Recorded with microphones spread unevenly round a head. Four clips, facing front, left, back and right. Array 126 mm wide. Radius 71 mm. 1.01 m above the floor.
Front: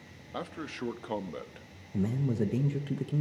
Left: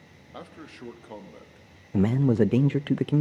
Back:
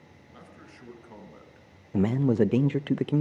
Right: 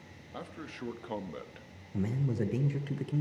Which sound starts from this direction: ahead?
A man speaking, at 0.3 s.